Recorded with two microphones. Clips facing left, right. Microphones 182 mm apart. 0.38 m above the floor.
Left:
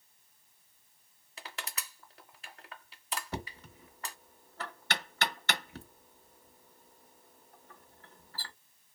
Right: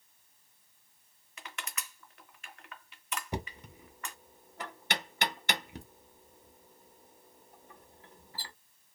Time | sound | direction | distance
1.4 | crushing | 35° left (ahead or behind) | 0.6 m
3.3 | knocking | 15° right (ahead or behind) | 0.5 m